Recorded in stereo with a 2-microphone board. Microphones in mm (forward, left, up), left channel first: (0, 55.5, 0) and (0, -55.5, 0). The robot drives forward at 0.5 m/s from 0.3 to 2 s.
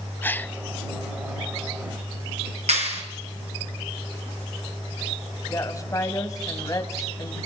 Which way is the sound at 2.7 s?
70° right (ahead or behind).